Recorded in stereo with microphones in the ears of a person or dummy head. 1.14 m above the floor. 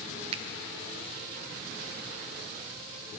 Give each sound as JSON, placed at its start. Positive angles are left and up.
{"t": 0.3, "sound": "a finger snap", "side_deg": -30, "distance_m": 0.5}